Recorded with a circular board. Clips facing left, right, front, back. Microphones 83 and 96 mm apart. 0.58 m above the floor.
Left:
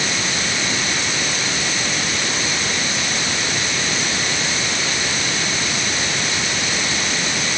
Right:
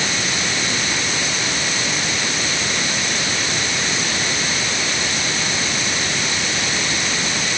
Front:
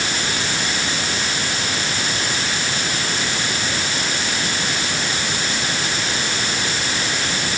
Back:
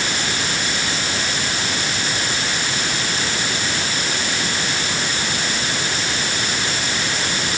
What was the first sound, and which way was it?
Only background noise.